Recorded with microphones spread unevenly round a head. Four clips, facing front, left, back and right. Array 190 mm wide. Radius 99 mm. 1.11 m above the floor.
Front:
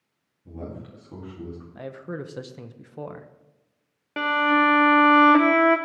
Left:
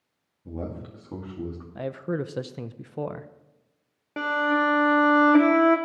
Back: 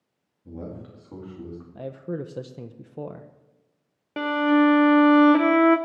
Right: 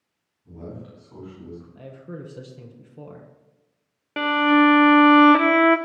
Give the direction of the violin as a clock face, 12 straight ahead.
6 o'clock.